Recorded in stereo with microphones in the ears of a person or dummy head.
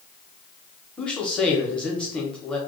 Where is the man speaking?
5° left (ahead or behind), 0.7 m.